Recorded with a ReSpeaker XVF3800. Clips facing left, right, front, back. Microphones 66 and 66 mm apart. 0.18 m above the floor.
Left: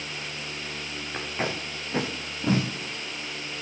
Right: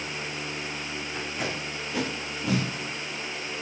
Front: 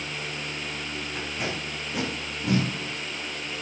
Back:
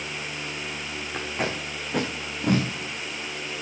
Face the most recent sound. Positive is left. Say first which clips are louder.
# left 3 dB, back 4 dB
turn(degrees=145)